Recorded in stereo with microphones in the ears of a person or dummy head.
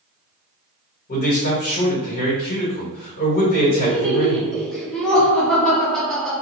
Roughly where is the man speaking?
Left.